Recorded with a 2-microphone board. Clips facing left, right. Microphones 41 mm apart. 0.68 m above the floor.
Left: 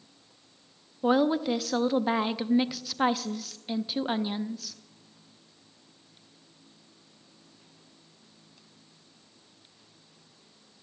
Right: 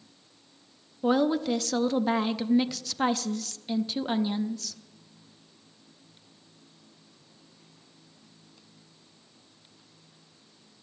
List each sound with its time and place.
1.0 s a woman speaking: 10° left (ahead or behind), 0.6 m